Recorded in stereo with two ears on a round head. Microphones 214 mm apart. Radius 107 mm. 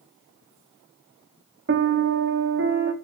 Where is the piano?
45° right (ahead or behind), 1.0 m.